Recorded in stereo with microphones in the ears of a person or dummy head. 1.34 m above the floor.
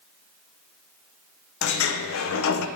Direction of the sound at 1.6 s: 75° left (ahead or behind).